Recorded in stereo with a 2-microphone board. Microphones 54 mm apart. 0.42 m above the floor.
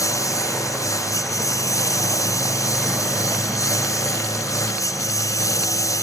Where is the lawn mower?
80° left.